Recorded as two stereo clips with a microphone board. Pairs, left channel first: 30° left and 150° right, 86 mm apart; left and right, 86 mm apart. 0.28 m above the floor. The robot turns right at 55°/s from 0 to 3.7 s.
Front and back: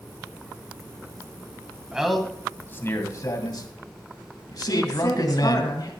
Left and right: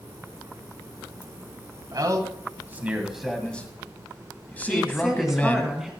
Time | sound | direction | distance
1.9 | a man speaking | 75° right | 2 m
4.7 | a woman speaking | 5° right | 2.5 m